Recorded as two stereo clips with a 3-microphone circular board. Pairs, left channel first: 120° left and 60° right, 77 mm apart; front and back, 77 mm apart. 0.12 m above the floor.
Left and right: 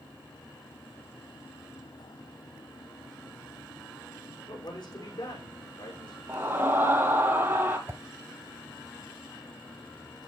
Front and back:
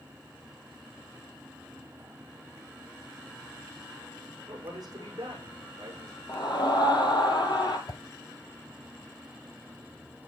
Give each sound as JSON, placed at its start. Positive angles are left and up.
{"t": 4.5, "sound": "a man speaking", "azimuth_deg": 140, "distance_m": 7.0}
{"t": 6.3, "sound": "a scream", "azimuth_deg": 0, "distance_m": 2.5}
{"t": 7.9, "sound": "a whoosh", "azimuth_deg": -5, "distance_m": 0.9}